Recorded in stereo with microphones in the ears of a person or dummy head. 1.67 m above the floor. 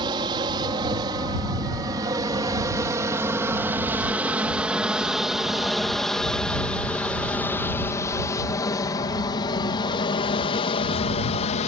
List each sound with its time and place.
0.0 s an aircraft: 25° right (ahead or behind); by 11.7 s 35° left (ahead or behind)